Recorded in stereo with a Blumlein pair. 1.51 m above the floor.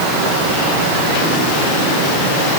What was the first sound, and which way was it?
Only background noise.